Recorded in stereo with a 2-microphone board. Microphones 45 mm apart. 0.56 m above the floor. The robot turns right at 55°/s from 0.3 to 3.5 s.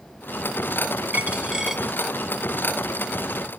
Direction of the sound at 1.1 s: 30° right.